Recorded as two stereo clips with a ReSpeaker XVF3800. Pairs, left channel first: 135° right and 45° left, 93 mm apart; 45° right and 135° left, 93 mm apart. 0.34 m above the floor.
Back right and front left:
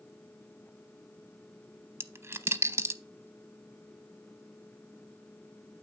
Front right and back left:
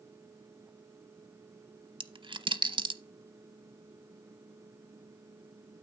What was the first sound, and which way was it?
A dropped coin, 110° left.